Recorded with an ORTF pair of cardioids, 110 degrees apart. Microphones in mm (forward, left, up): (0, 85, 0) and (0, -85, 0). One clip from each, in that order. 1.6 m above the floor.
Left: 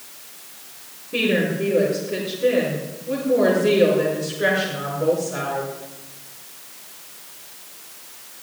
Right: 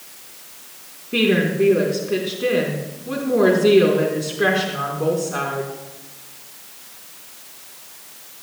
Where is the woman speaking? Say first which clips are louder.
Right 3 dB; 45° right, 4 m.